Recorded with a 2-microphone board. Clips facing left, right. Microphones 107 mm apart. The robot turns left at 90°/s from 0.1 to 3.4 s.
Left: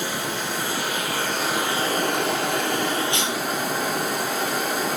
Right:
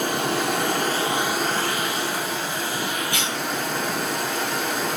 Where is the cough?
25° left (ahead or behind), 2.5 m; by 3.4 s 5° left (ahead or behind), 2.5 m.